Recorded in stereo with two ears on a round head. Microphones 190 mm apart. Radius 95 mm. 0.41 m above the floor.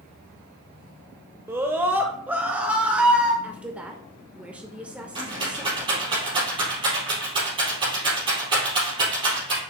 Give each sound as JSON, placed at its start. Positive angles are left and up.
{"t": 1.5, "sound": "a scream", "side_deg": -10, "distance_m": 0.9}
{"t": 3.4, "sound": "a woman speaking", "side_deg": -5, "distance_m": 0.8}
{"t": 5.2, "sound": "a rattle", "side_deg": -25, "distance_m": 4.0}